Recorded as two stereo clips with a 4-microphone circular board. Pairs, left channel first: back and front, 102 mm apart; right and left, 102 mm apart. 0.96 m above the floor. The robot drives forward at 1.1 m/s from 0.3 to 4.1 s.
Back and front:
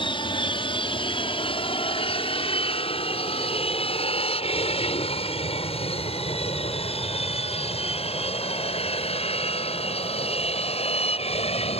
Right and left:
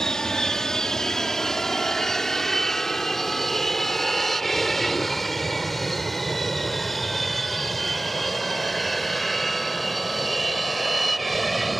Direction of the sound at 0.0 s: 175° right.